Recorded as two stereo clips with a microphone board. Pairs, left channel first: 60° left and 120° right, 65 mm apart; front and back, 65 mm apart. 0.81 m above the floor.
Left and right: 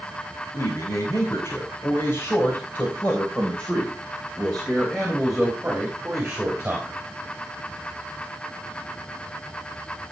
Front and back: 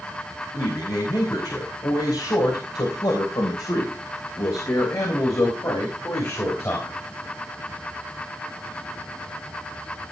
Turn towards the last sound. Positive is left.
turn(degrees=-50)